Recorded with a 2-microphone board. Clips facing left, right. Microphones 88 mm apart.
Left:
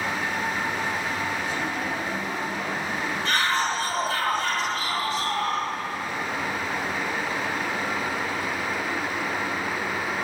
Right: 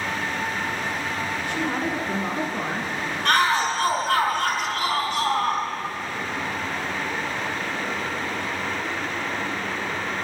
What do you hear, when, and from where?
1.5 s a woman speaking: 80° right, 4.5 m; by 2.9 s 65° right (ahead or behind), 5 m
3.2 s a shout: 60° right (ahead or behind), 4.5 m